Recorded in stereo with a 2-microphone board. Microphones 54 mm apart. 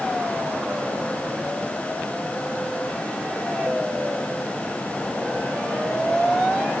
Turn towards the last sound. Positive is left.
No sound to turn to.